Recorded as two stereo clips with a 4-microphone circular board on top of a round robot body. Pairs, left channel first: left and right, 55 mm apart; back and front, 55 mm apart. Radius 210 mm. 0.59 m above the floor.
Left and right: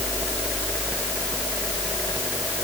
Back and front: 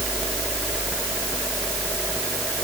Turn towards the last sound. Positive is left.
No sound to turn to.